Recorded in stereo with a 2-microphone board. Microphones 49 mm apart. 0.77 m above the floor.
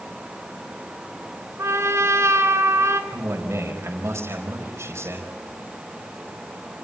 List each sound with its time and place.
1.6 s a trumpet: 80° right, 2.5 m
3.1 s a man speaking: 70° right (ahead or behind), 4.5 m